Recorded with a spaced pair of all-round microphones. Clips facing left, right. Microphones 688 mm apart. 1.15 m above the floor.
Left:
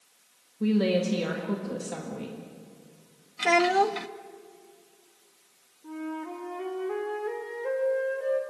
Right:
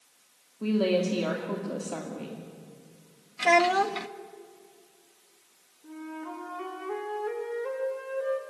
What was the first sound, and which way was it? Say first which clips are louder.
A woman speaking: left 1 dB; 50° left (ahead or behind).